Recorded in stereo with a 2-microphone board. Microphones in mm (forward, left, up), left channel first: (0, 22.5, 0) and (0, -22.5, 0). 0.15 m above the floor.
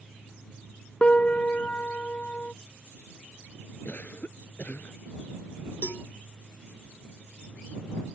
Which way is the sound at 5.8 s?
65° left (ahead or behind).